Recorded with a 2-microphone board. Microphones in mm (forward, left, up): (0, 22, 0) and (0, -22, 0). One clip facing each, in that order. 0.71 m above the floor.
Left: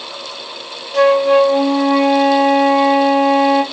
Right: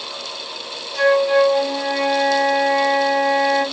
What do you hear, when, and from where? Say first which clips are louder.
0.9 s a flute: left 4 dB; 60° left (ahead or behind), 0.6 m